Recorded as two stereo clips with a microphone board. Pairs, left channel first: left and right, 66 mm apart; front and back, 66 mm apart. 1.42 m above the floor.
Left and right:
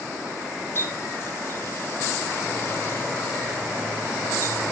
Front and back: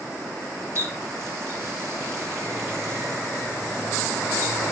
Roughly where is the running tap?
Behind left.